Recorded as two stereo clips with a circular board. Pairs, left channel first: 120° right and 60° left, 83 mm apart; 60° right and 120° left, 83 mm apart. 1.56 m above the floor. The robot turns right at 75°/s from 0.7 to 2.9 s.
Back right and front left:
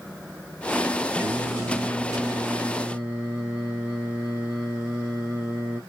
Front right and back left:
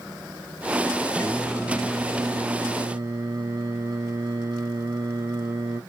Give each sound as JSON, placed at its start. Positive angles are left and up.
{"t": 1.2, "sound": "singing", "azimuth_deg": 0, "distance_m": 1.7}